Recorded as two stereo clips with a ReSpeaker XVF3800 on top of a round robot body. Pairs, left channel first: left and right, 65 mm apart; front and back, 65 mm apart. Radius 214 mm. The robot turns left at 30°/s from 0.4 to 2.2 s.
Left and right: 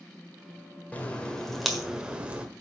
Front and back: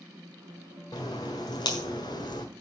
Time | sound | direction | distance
0.9 | a crack | 25° left | 1.6 m